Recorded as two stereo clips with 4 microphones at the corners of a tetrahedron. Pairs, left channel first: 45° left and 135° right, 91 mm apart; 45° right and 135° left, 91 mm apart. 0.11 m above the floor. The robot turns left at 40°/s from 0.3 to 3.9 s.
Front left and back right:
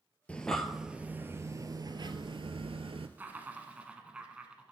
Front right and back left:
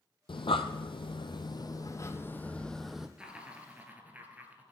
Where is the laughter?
165° right, 1.1 m; by 4.7 s 170° left, 1.1 m.